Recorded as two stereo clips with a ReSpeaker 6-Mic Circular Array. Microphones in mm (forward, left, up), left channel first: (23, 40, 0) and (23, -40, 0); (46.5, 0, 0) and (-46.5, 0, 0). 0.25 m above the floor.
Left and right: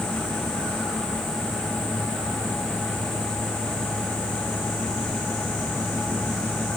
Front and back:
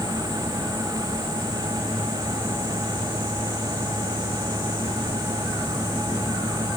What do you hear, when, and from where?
Only background noise.